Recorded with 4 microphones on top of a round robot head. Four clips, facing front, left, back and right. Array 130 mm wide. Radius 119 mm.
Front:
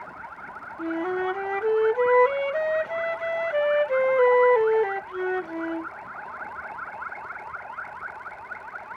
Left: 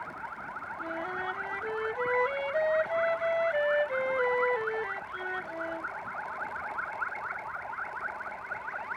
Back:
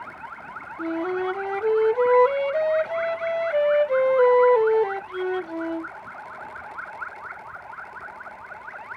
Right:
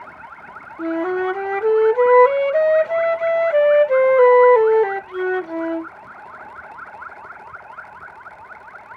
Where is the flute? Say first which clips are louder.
Right 16 dB, back 1 dB; 95° right.